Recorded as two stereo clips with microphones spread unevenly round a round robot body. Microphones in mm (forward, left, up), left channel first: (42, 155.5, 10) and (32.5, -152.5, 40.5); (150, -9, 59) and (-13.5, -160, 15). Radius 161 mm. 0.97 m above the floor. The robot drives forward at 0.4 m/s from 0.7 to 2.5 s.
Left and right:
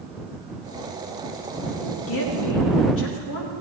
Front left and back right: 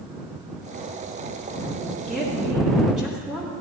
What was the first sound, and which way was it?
A woman speaking, 135° left.